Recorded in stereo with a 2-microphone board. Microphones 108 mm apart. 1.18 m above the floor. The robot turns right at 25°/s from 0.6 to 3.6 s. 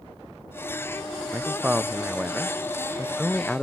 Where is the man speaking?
15° right (ahead or behind); by 3.6 s 5° left (ahead or behind).